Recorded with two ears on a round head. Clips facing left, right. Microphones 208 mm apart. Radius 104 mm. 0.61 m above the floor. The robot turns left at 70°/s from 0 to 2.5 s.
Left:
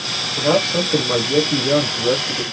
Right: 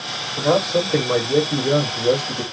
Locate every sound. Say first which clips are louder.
0.4 s a man speaking: even; 150° left, 1.5 m; by 2.4 s 5° left, 1.5 m